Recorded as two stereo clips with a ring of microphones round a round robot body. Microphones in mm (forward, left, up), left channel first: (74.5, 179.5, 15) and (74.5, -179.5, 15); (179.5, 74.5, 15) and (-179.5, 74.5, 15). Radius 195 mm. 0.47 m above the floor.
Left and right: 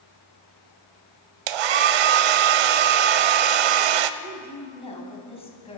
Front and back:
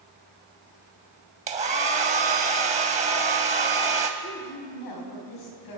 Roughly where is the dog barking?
I don't hear a dog barking.